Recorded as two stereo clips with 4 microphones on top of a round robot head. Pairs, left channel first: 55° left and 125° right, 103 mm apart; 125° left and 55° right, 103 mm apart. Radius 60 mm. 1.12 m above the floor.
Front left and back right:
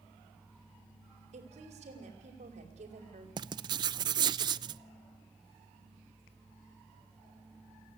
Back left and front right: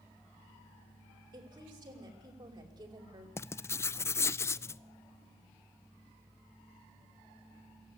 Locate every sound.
1.3 s a woman speaking: 105° right, 5 m
3.4 s writing: 170° right, 0.6 m